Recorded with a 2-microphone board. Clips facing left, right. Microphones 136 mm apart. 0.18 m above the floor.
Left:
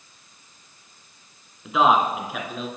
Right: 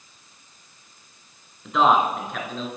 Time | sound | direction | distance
1.6 | a man speaking | 5° left (ahead or behind) | 2 m